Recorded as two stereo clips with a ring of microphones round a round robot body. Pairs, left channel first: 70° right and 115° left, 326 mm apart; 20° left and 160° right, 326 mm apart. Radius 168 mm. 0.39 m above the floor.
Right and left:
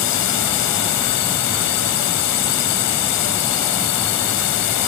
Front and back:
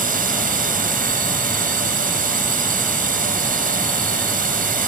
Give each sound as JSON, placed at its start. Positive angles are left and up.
{"t": 0.0, "sound": "a drone", "azimuth_deg": -95}